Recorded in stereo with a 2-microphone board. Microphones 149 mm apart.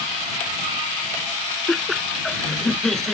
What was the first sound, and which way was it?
Laughter, 5° left (ahead or behind).